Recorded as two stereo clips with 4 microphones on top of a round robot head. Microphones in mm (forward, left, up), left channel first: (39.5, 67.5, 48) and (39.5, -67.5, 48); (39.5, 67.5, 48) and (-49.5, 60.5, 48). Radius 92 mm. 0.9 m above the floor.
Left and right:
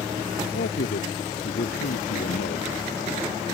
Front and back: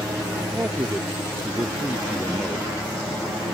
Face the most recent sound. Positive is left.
turn(degrees=110)